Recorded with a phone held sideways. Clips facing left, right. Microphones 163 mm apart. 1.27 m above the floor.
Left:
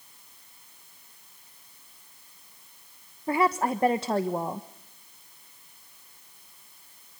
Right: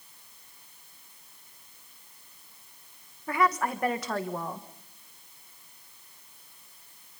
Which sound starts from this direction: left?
A woman speaking, at 3.3 s.